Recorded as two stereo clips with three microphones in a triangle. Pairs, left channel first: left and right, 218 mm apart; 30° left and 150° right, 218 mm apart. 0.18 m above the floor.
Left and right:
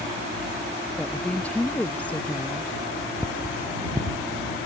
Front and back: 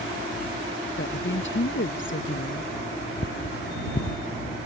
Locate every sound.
1.0 s a woman speaking: 5° left
3.2 s cutlery clinking: 10° right